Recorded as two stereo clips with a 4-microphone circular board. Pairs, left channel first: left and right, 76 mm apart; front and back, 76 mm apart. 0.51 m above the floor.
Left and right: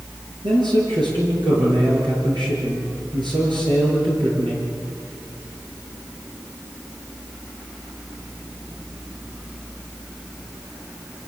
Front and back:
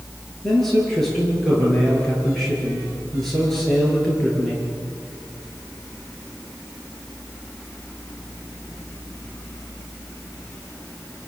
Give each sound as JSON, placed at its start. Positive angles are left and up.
{"t": 0.4, "sound": "a man speaking", "azimuth_deg": -85, "distance_m": 9.5}